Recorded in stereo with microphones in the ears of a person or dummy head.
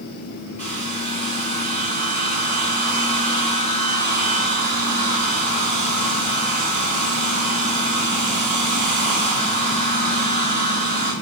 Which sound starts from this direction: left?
A hair dryer, at 0.6 s.